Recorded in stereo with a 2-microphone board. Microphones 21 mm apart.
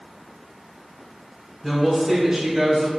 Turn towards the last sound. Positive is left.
turn(degrees=-35)  # may be behind; listen again after turning